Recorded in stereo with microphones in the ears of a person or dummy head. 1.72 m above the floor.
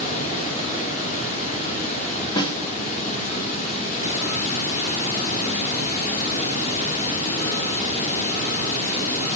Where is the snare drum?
25° left (ahead or behind), 0.7 m.